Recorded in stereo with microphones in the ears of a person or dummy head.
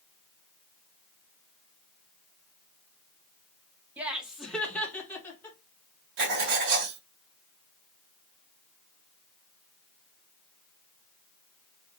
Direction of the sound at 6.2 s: 55° right (ahead or behind).